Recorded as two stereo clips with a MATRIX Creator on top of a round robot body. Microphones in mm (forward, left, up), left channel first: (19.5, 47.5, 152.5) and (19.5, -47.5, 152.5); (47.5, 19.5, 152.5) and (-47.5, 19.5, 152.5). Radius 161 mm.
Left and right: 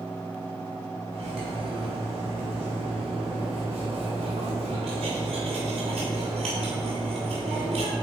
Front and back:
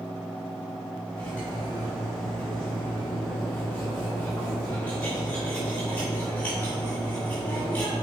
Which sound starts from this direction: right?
Cutlery clinking, at 1.1 s.